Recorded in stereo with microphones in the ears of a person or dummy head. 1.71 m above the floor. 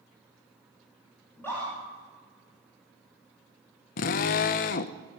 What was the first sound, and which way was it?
A scream, 15° left (ahead or behind).